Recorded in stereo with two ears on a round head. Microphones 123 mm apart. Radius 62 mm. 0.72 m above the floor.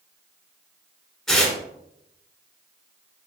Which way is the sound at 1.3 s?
5° left (ahead or behind).